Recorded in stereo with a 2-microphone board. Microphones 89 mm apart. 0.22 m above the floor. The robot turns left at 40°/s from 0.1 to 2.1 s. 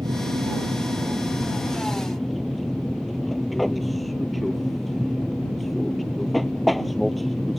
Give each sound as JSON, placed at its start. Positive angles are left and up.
{"t": 0.0, "sound": "an aircraft", "azimuth_deg": -100}